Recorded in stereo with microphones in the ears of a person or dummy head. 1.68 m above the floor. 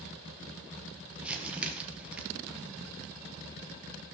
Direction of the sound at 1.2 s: 5° right (ahead or behind).